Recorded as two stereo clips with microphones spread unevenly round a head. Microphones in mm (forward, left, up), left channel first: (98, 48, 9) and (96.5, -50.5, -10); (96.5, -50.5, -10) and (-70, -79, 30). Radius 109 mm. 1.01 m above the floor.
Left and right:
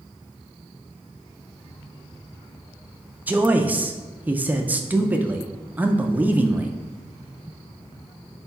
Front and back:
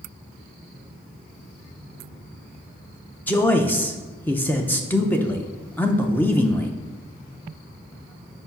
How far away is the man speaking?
About 0.5 m.